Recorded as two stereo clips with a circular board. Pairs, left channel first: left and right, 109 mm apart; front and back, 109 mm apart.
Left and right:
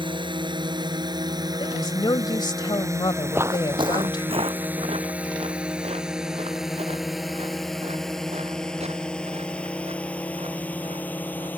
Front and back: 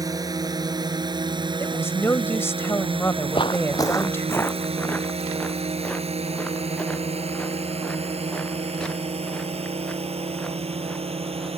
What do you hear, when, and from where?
0.0 s a drone: 125° right; by 11.6 s 160° left
1.6 s a woman speaking: 60° left
3.3 s footsteps: 20° right; by 11.5 s 85° right